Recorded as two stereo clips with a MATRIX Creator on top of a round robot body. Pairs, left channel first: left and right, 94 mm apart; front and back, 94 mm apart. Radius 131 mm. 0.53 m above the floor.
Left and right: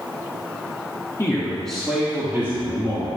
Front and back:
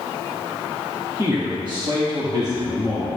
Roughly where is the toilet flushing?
I don't hear a toilet flushing.